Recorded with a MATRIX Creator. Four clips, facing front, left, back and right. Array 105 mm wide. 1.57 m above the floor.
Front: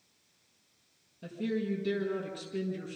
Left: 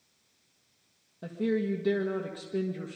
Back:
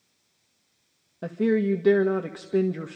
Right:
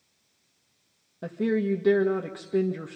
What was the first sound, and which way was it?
A woman speaking, 160° right.